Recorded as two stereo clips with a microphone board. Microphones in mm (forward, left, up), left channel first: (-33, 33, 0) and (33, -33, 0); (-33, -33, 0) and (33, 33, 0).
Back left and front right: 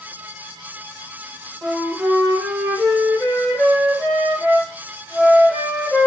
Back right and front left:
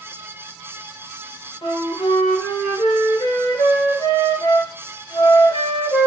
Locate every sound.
1.6 s a flute: 145° right, 1.3 m